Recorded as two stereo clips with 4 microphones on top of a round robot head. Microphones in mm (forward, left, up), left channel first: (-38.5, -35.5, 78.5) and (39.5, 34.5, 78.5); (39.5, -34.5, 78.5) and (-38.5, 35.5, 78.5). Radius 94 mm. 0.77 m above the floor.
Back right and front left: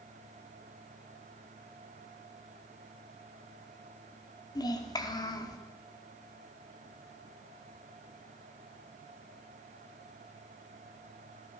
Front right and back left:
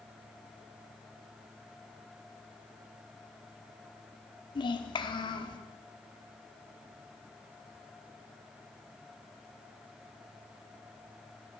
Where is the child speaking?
85° right, 1.7 m.